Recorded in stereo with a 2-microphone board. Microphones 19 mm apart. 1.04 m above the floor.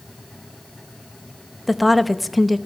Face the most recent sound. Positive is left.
turn(degrees=-5)  # may be behind; listen again after turning